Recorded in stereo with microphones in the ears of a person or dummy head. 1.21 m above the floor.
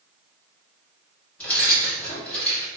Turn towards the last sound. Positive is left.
turn(degrees=5)  # may be behind; listen again after turning